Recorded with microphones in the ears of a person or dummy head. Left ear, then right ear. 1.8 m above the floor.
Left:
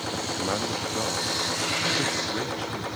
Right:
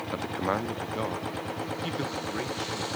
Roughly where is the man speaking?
Right.